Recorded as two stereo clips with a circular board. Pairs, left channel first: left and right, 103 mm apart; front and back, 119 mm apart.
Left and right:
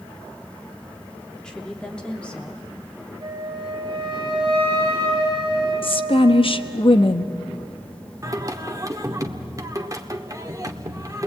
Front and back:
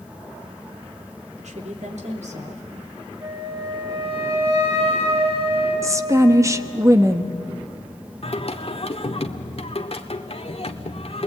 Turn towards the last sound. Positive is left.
turn(degrees=-35)